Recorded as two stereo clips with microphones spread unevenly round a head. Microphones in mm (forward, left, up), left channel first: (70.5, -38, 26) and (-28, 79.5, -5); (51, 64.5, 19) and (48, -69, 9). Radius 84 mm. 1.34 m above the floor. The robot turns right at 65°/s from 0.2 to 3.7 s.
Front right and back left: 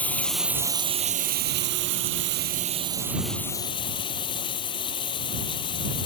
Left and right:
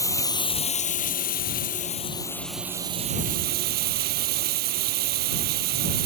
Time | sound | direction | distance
0.0 | running water | 25° left | ?